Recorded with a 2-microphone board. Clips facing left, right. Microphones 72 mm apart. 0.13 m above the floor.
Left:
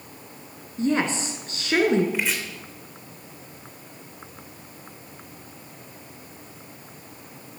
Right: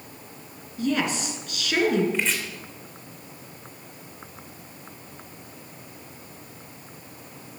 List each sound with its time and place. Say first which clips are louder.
0.8 s a woman speaking: left 2 dB; 30° left (ahead or behind), 1.5 m
2.1 s chopping: even; 10° left (ahead or behind), 2.5 m